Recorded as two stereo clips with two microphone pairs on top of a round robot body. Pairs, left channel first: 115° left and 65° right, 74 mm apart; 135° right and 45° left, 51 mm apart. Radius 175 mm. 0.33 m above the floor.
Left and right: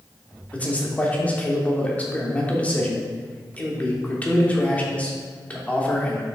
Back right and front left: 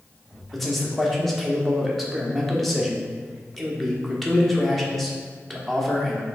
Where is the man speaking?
140° left, 1.2 m.